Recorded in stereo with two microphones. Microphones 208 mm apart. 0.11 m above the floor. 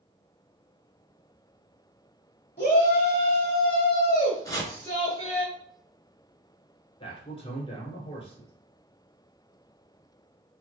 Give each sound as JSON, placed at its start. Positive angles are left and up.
{"t": 2.6, "sound": "a shout", "side_deg": 40, "distance_m": 1.4}
{"t": 4.5, "sound": "chopping", "side_deg": 15, "distance_m": 0.9}
{"t": 7.0, "sound": "a man speaking", "side_deg": 25, "distance_m": 1.1}